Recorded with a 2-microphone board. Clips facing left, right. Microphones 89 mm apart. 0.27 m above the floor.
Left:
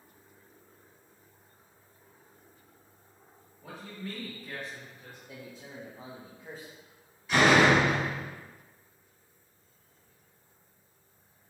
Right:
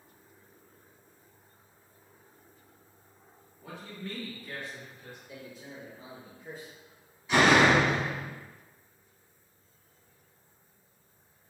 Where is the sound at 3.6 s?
5° left (ahead or behind), 1.0 m.